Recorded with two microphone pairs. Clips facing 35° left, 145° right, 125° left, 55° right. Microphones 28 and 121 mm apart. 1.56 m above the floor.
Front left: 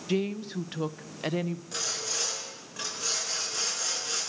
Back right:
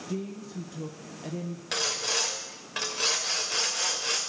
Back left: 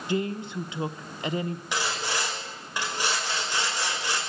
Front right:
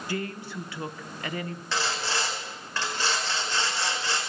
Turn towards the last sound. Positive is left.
turn(degrees=-160)